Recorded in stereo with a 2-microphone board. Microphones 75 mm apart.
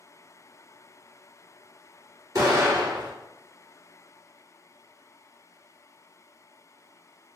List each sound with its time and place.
2.4 s an explosion: 45° right (ahead or behind), 1.7 m